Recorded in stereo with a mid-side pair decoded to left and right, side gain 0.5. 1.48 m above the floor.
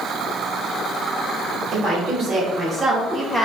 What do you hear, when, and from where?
1.7 s a woman speaking: 45° right, 1.1 m; by 3.5 s 20° left, 0.8 m